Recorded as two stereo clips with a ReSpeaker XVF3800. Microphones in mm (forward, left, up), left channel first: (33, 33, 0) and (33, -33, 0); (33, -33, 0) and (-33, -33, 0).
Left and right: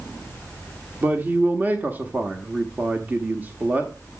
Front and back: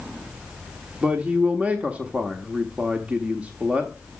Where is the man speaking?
125° right, 1.1 m.